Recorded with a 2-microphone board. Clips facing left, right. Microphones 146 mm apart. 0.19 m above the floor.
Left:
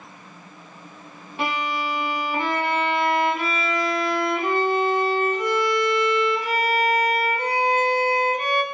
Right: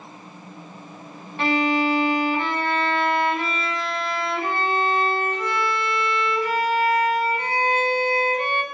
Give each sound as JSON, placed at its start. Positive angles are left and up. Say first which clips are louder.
{"t": 1.4, "sound": "a violin", "louder": "right 6 dB", "side_deg": 15, "distance_m": 1.1}